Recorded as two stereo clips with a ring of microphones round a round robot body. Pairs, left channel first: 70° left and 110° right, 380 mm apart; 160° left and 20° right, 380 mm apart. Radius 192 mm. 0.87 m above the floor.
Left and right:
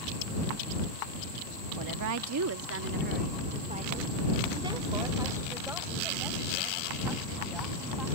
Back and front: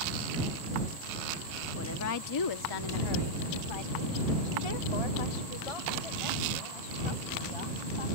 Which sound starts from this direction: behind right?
A woman speaking, at 1.8 s.